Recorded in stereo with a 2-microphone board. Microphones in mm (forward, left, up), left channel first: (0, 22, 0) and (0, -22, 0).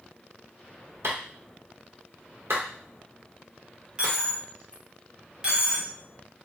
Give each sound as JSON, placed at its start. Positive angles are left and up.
{"t": 1.0, "sound": "a clap", "side_deg": -70, "distance_m": 0.9}
{"t": 4.0, "sound": "a dropped coin", "side_deg": -20, "distance_m": 0.8}